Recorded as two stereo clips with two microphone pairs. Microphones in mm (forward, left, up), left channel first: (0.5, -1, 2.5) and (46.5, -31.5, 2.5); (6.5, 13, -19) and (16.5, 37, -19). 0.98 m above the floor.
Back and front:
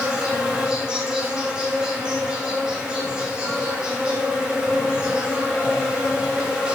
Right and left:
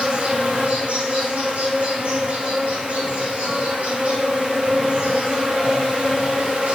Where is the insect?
40° left, 3 m.